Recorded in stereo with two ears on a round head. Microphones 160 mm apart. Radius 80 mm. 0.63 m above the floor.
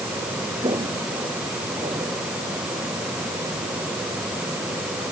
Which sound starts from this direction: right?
Footsteps, at 0.6 s.